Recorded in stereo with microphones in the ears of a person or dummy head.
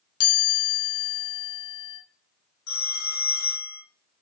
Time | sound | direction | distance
0.2 | a chime | 80° left | 1.6 m
2.7 | a phone ringing | 65° left (ahead or behind) | 1.6 m